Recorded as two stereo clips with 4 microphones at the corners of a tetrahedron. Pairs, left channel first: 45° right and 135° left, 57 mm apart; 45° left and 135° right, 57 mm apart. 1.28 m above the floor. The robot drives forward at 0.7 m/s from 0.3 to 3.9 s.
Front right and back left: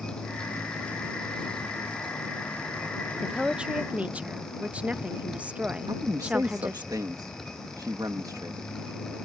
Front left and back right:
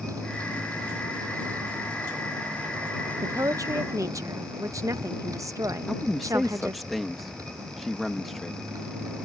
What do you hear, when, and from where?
0.0 s a motorcycle: 120° right; by 9.2 s 130° right
3.2 s a woman speaking: 140° right; by 6.9 s 155° right
5.9 s a man speaking: 135° left